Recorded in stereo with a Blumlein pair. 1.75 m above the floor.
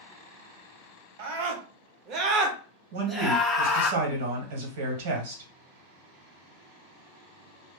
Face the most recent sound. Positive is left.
turn(degrees=-55)